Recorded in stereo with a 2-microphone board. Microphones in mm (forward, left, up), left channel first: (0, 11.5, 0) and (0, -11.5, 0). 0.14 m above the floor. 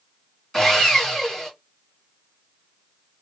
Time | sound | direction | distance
0.5 | sawing | 20° left (ahead or behind) | 1.6 m